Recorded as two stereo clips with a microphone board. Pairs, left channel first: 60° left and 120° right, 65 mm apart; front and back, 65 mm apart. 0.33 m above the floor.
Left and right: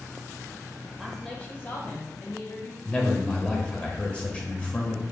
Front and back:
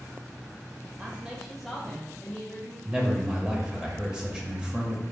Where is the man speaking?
115° left, 0.9 m.